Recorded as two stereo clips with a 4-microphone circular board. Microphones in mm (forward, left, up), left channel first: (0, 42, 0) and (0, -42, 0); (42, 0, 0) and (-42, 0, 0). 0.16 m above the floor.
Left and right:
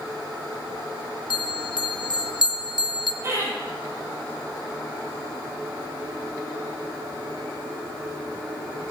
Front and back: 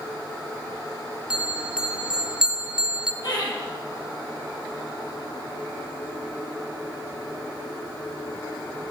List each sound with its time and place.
1.3 s a bell: 100° left, 0.6 m
3.2 s laughter: 30° right, 5.5 m